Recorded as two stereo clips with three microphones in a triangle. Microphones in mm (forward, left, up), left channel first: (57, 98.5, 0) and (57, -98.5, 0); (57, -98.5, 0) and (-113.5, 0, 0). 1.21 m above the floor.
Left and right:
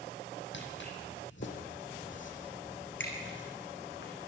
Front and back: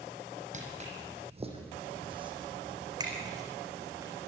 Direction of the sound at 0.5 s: 100° left.